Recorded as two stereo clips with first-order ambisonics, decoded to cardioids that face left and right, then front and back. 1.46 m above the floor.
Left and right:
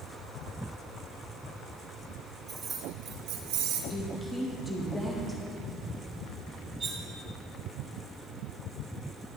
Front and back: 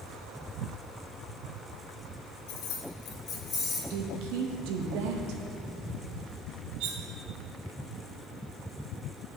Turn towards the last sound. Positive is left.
turn(degrees=-160)